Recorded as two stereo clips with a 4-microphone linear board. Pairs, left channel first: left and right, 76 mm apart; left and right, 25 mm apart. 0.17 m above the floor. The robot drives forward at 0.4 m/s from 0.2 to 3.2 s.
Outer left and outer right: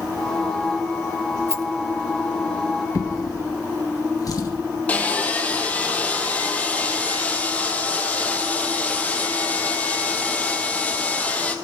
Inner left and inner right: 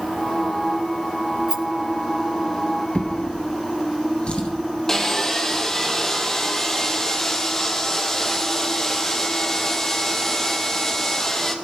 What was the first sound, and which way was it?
A rattle, 40° right (ahead or behind).